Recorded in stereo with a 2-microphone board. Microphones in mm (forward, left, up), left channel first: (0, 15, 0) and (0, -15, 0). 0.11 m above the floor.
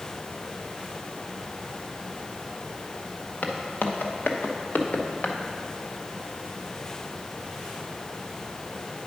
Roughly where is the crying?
I don't hear crying.